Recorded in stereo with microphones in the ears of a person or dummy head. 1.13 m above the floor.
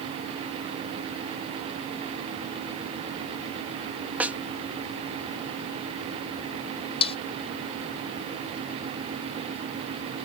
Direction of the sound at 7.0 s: 40° left (ahead or behind).